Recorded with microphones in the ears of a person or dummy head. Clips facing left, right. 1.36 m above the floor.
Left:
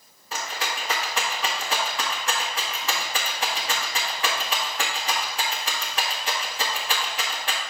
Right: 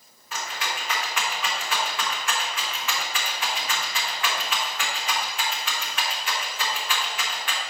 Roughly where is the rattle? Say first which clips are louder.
Left 1 dB; left.